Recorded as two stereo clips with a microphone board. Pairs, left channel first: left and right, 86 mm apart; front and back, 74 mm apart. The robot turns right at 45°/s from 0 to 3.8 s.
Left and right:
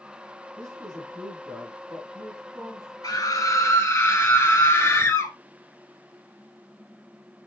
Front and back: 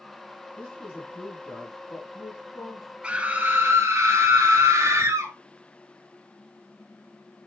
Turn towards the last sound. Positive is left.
turn(degrees=140)